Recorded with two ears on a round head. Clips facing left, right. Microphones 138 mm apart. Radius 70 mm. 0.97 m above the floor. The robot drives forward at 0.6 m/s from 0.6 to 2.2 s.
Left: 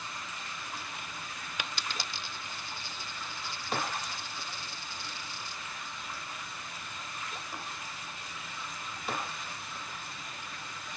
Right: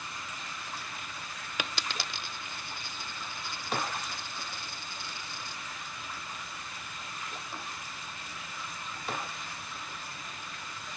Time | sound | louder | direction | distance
1.6 | a dropped coin | right 3 dB | 60° right (ahead or behind) | ?